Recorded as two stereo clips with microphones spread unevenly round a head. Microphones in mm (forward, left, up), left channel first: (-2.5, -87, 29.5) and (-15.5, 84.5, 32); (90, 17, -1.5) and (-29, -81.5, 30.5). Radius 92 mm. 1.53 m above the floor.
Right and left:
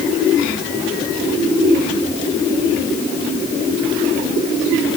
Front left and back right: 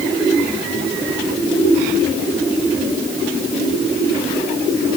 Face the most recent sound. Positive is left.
No sound to turn to.